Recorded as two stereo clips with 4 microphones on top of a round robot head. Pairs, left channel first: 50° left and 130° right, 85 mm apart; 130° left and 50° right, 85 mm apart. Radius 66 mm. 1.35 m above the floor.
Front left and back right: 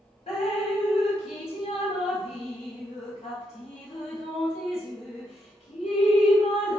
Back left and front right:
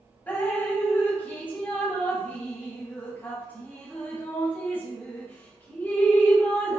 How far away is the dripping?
About 1.7 m.